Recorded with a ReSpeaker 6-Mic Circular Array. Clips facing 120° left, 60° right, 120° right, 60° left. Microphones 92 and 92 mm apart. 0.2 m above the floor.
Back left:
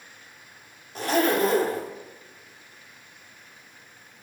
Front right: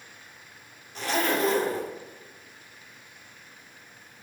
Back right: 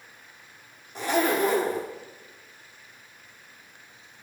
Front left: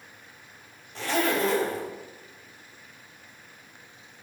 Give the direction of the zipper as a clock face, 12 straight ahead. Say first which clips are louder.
Back left 4 dB, back right 2 dB; 6 o'clock.